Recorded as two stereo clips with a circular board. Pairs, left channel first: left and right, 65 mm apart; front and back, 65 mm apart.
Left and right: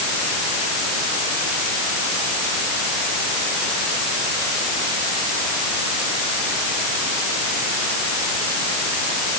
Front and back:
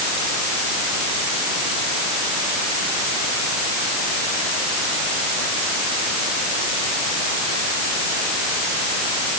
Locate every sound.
Only background noise.